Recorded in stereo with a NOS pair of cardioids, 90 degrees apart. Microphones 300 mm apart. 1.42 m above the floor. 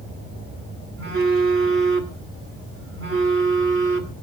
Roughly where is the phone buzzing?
Ahead right.